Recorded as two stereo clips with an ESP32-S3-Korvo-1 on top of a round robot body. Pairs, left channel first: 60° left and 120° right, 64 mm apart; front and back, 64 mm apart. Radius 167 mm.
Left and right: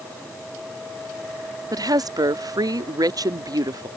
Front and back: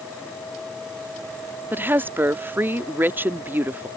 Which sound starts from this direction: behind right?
A woman speaking, at 1.7 s.